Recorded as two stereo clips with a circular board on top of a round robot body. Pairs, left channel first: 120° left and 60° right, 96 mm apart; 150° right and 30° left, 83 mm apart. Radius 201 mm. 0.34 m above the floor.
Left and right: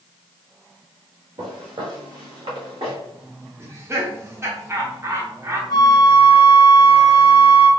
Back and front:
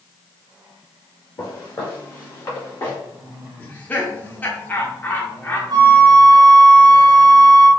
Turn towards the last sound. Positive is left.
turn(degrees=70)